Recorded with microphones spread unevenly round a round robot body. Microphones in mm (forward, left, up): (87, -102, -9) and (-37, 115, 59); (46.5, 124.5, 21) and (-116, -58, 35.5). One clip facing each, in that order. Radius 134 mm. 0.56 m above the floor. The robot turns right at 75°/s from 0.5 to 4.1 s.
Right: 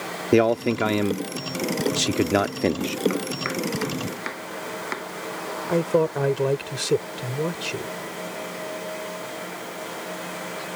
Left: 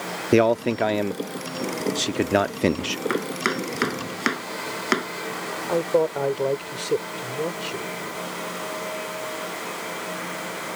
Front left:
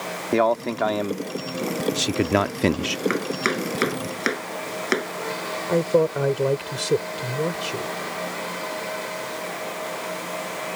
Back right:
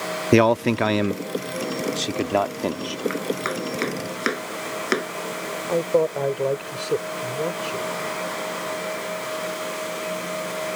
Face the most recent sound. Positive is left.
turn(degrees=-15)